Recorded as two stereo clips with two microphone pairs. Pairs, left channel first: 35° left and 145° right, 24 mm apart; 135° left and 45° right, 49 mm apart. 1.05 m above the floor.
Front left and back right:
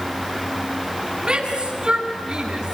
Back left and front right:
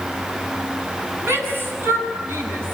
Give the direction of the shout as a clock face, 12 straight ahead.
3 o'clock.